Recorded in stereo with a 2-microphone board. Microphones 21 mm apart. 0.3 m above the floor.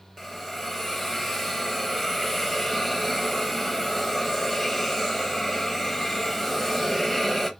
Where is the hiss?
5° left (ahead or behind), 0.5 m.